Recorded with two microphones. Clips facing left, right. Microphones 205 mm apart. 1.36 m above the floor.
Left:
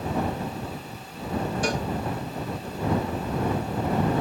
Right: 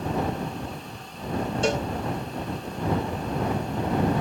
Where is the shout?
I don't hear a shout.